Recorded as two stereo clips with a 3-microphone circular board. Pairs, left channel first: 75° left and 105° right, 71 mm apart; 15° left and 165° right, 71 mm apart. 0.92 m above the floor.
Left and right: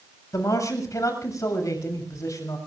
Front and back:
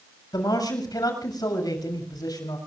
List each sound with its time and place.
0.3 s a man speaking: 35° left, 7 m